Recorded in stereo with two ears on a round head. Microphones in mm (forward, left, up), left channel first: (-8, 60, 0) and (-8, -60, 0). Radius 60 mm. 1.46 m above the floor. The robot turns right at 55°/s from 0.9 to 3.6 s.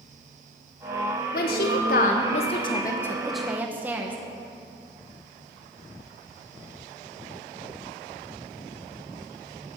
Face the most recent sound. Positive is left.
turn(degrees=-165)